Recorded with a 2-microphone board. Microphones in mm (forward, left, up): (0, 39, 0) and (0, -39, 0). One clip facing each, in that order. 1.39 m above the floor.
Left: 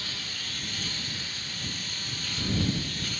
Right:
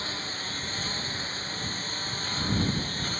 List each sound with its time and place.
0.0 s a lawn mower: 35° right (ahead or behind); by 3.2 s 40° right (ahead or behind)